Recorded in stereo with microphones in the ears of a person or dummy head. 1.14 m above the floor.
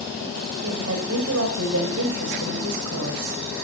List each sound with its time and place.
0.6 s a woman speaking: 75° right (ahead or behind), 5 m